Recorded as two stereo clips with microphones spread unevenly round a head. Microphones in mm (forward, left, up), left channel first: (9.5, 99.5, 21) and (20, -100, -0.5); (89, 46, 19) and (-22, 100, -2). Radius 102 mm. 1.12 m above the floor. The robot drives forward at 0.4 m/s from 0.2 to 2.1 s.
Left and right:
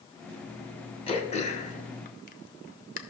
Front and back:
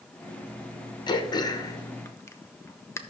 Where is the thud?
No thud in this recording.